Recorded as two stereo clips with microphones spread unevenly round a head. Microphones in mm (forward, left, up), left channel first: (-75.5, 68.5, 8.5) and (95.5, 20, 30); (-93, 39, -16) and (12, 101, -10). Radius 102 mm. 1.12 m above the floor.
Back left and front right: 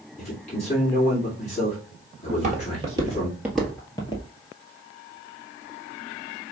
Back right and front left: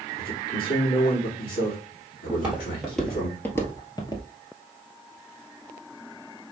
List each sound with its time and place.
0.2 s a man speaking: 135° right, 2 m
2.3 s footsteps: 45° right, 1.7 m; by 4.2 s 145° right, 1.2 m